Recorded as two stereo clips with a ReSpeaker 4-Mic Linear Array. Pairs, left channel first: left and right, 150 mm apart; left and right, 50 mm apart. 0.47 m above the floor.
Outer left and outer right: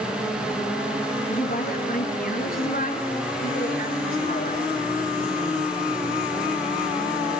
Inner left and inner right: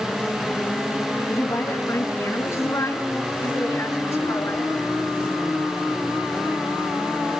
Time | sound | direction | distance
1.3 | a woman speaking | 70° left (ahead or behind) | 4.5 m